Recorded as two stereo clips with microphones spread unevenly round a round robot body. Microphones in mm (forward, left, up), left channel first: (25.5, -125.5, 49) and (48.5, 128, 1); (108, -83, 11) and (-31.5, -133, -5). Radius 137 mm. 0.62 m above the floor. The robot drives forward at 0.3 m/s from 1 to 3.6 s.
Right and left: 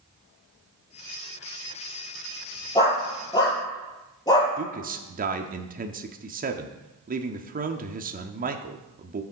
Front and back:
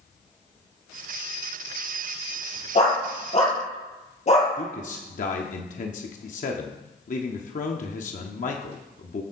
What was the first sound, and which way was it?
A dog barking, 20° right.